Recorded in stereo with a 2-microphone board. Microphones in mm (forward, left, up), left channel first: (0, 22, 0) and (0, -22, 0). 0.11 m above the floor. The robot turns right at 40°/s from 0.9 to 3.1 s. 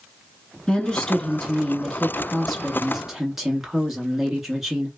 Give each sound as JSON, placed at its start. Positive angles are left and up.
{"t": 0.7, "sound": "a woman speaking", "side_deg": 15, "distance_m": 1.1}